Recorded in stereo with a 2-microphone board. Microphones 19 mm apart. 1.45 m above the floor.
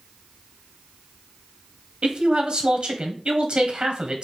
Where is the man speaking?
60° right (ahead or behind), 1.0 m.